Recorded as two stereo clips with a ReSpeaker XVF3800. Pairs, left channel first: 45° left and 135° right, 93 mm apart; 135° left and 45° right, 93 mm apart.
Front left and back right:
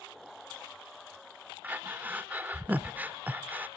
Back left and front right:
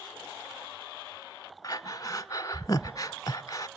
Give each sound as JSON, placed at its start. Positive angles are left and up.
{"t": 1.6, "sound": "breathing", "azimuth_deg": 160, "distance_m": 0.5}